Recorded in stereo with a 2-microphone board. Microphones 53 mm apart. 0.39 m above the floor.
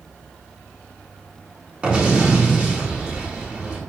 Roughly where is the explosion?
Centre.